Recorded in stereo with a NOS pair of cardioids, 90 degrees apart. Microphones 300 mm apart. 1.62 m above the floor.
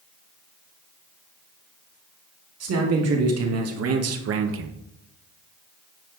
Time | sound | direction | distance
2.6 | a man speaking | 55° right | 3 m